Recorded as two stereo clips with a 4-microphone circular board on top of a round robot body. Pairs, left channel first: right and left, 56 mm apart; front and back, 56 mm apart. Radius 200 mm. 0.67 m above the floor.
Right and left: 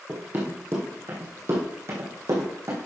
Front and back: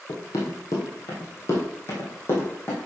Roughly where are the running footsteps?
Ahead left.